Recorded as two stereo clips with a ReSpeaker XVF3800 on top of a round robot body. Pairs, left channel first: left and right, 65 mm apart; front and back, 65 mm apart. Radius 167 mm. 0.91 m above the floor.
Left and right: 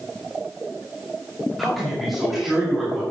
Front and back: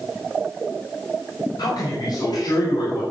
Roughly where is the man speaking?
Ahead.